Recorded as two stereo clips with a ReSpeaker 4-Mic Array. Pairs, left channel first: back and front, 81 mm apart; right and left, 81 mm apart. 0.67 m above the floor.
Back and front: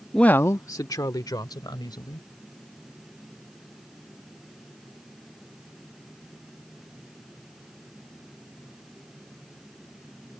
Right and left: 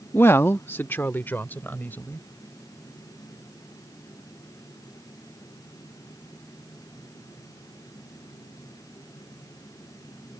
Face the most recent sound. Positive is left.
turn(degrees=-155)